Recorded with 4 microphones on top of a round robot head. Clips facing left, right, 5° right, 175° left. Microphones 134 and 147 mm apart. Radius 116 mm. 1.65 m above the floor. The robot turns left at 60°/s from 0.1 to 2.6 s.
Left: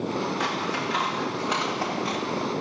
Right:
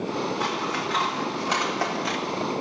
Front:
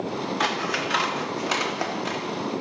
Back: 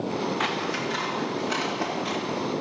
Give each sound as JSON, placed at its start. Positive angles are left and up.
{"t": 0.4, "sound": "scissors", "azimuth_deg": 40, "distance_m": 1.1}